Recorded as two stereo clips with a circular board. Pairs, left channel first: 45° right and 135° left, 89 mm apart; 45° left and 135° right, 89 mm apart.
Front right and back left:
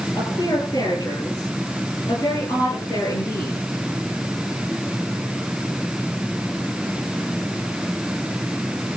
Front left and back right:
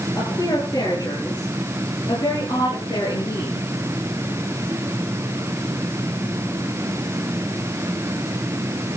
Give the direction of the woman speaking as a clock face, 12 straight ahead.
12 o'clock.